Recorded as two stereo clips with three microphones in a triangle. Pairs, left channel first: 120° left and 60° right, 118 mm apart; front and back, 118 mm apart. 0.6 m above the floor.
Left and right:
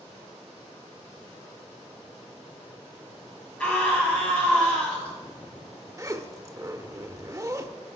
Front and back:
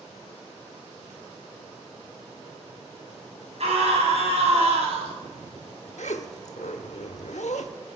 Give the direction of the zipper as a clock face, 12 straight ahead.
12 o'clock.